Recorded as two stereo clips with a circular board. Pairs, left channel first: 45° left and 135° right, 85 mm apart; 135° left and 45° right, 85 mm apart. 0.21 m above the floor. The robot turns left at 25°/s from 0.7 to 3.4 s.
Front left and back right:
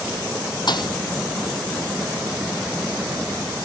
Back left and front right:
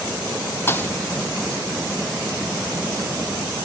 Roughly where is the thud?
Left.